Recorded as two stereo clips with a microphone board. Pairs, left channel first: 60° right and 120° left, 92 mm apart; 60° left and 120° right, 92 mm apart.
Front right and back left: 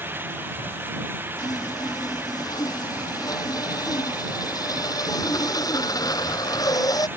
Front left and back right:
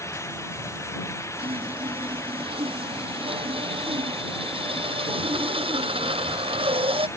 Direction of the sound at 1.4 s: 110° right.